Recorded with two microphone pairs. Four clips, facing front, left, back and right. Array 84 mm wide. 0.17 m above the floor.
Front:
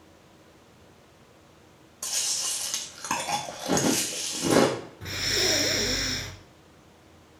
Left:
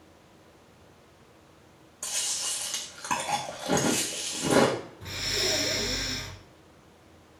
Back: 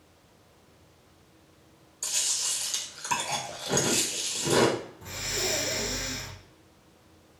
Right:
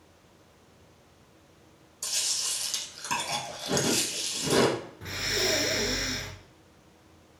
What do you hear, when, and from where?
2.0 s chewing: 30° left, 1.4 m
5.0 s breathing: 35° right, 0.6 m